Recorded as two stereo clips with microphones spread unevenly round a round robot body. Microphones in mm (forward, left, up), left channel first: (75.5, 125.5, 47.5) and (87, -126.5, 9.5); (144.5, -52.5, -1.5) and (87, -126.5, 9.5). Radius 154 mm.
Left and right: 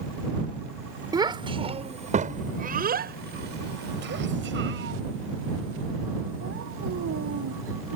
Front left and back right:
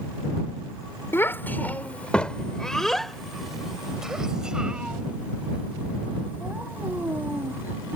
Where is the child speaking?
15° right; by 8.0 s 60° right.